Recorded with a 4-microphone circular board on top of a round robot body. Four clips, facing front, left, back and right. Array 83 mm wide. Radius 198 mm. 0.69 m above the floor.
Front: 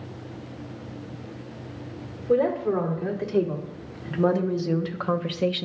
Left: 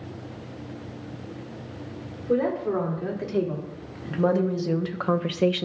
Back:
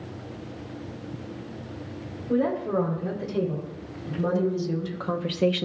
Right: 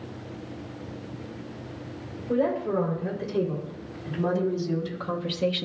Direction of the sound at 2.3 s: 40° left.